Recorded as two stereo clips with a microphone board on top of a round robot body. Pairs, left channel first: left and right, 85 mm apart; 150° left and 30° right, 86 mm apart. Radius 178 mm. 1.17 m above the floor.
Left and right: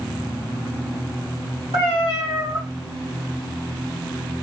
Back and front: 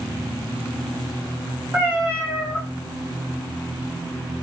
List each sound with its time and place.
1.7 s a cat meowing: 105° right, 0.6 m